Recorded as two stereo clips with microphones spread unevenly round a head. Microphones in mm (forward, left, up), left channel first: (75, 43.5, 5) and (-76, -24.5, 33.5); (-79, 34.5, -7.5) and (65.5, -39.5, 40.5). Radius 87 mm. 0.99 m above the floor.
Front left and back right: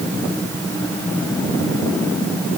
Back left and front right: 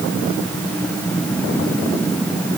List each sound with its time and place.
Only background noise.